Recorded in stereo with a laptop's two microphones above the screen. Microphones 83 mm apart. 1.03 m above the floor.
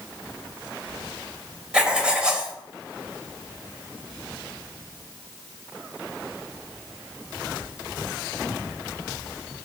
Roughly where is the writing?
Centre.